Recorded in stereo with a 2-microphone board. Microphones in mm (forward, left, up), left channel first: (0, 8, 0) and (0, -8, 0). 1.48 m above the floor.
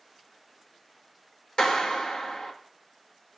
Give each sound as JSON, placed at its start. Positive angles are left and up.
{"t": 1.6, "sound": "a clap", "side_deg": 70, "distance_m": 2.0}